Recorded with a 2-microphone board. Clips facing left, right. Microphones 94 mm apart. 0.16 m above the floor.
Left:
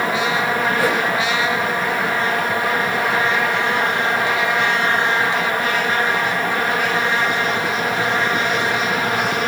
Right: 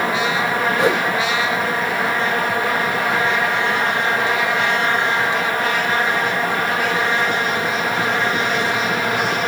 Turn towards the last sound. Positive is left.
turn(degrees=-20)  # may be behind; listen again after turning